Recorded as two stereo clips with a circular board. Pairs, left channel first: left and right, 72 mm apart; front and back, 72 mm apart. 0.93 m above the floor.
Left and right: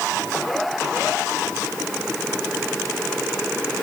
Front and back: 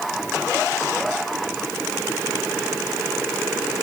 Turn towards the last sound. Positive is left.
No sound to turn to.